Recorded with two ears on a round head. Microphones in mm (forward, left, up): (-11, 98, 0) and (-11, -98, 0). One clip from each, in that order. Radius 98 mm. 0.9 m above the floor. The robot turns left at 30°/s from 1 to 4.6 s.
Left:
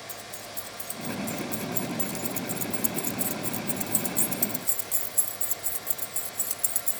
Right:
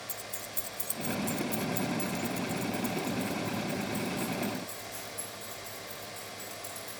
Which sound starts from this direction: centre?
Keys jangling, at 0.1 s.